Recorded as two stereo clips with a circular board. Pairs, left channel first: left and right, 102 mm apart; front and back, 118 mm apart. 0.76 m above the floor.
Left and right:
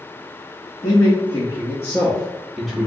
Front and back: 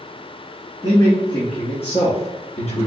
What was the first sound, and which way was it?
A man speaking, 60° left.